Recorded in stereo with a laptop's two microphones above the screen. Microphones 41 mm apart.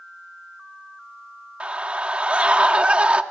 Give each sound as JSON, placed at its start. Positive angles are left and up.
{"t": 1.6, "sound": "a scream", "side_deg": -35, "distance_m": 1.6}